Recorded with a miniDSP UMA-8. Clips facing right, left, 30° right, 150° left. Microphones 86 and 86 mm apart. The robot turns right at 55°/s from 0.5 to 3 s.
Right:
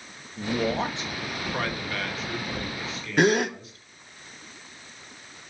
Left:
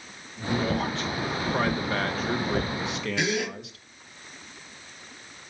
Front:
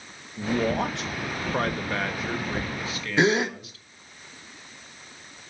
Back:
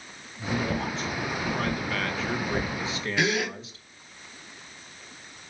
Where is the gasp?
75° right, 0.7 m.